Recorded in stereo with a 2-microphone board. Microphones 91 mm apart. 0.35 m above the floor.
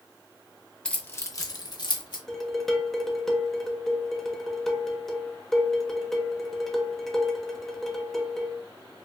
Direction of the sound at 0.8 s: 10° left (ahead or behind).